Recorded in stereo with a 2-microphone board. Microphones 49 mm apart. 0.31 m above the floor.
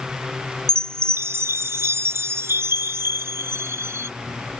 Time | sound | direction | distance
0.7 | a chime | 65° right (ahead or behind) | ?